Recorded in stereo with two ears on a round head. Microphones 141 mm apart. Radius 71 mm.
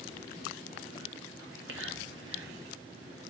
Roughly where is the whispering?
Right.